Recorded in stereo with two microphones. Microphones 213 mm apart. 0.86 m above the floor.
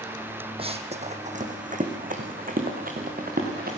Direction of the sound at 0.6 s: 25° right (ahead or behind).